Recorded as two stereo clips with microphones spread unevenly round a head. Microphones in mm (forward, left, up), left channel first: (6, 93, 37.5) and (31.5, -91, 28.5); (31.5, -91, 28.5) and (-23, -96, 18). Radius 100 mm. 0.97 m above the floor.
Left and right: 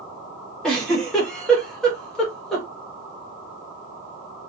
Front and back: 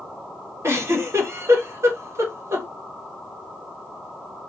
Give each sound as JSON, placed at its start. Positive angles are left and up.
{"t": 0.6, "sound": "a giggle", "azimuth_deg": -175, "distance_m": 1.1}